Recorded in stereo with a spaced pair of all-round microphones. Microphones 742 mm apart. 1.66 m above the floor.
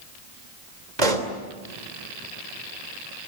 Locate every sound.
1.0 s a pop: 65° right (ahead or behind), 3 m